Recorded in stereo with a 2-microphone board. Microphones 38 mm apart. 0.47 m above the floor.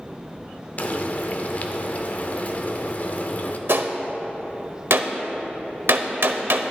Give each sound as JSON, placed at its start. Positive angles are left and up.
{"t": 0.8, "sound": "frying", "side_deg": 45, "distance_m": 0.7}
{"t": 3.7, "sound": "a gunshot", "side_deg": -75, "distance_m": 0.8}